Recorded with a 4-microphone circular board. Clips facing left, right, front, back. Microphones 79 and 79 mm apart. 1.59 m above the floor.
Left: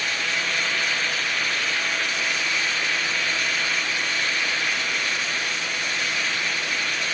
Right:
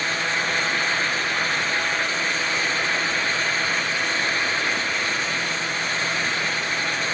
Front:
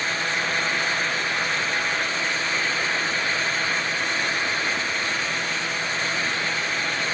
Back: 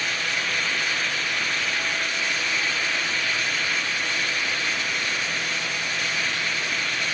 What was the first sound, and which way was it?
Only background noise.